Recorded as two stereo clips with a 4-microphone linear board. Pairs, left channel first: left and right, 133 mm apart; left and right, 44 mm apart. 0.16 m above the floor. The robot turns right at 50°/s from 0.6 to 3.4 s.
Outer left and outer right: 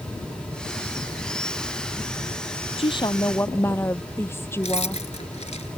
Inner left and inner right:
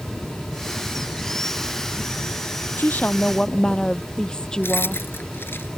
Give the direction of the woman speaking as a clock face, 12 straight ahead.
8 o'clock.